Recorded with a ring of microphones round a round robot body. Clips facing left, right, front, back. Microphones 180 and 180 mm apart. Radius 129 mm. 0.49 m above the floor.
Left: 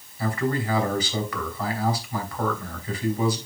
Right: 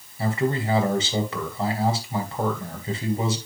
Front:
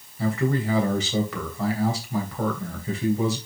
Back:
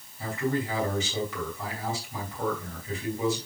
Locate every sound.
0.2 s a man speaking: 25° right, 3 m